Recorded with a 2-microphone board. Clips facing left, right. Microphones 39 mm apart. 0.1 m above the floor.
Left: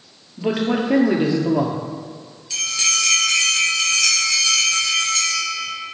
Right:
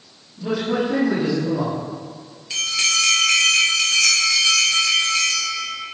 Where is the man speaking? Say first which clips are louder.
Left 2 dB; 50° left (ahead or behind), 1.8 m.